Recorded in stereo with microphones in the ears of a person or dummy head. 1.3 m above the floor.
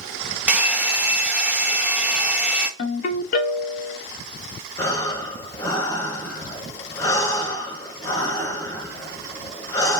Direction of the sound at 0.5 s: 5° right (ahead or behind).